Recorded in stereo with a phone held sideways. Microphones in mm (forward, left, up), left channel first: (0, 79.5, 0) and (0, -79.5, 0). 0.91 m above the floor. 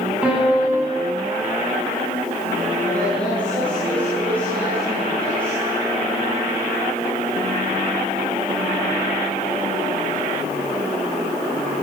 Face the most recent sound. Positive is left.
turn(degrees=10)  # may be behind; listen again after turning